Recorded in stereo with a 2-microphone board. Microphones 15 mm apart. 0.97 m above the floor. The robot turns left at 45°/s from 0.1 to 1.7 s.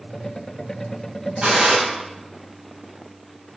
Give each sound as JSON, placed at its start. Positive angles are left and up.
{"t": 1.4, "sound": "a gunshot", "side_deg": -85, "distance_m": 6.5}